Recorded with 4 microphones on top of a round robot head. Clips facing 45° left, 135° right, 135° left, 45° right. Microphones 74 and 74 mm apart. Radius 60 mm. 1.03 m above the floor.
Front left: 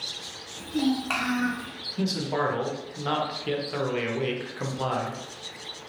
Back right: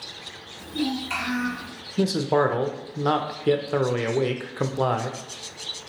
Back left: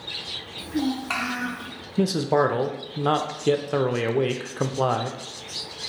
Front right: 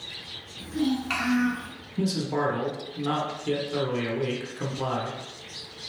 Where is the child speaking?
85° left, 1.5 m; by 1.7 s 65° left, 0.9 m.